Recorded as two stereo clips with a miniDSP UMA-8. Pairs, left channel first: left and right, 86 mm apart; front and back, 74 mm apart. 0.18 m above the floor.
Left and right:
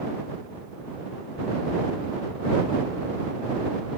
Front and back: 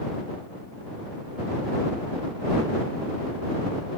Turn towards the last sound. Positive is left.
No sound to turn to.